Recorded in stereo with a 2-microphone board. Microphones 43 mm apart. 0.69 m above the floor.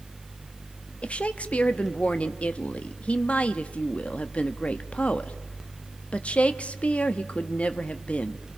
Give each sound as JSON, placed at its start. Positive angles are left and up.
{"t": 1.0, "sound": "a woman speaking", "side_deg": 30, "distance_m": 1.0}